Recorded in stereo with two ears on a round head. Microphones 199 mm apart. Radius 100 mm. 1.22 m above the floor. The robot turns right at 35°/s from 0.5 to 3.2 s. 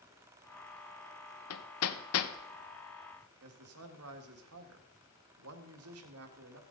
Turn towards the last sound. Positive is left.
turn(degrees=-85)